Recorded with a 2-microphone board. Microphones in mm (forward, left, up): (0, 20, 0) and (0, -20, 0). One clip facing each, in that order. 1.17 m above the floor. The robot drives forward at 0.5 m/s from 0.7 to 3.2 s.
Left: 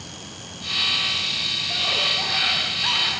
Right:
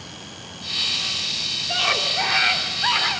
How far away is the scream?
About 3.5 m.